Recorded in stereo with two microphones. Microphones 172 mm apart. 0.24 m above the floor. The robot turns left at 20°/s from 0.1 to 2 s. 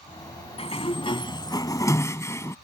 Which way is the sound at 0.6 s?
35° left (ahead or behind).